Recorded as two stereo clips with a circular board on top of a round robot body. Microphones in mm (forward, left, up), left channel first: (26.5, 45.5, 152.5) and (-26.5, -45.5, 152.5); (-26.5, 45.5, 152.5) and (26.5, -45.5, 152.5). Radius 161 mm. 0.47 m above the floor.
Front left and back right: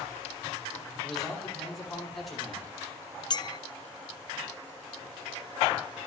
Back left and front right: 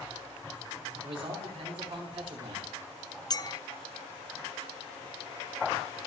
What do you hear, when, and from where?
1.0 s a man speaking: 25° right, 5.5 m
3.3 s a clink: 85° left, 0.6 m